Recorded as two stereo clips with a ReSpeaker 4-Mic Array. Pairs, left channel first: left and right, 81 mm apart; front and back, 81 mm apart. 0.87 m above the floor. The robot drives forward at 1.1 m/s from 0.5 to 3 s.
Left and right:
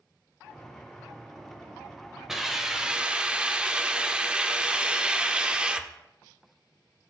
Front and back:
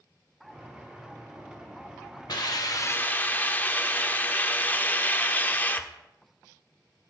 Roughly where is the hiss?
Ahead.